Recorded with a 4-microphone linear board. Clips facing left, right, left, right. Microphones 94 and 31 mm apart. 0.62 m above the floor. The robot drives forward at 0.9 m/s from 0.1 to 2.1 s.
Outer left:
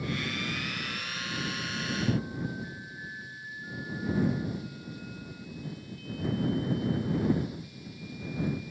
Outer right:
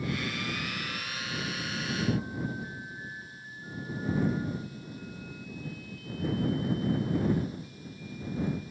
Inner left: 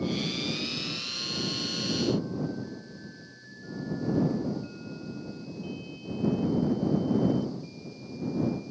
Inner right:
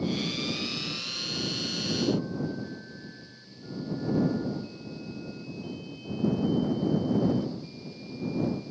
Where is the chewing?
I don't hear chewing.